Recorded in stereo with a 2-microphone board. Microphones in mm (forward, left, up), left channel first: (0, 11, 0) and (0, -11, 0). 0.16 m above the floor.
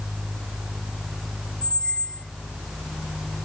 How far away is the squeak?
About 0.9 m.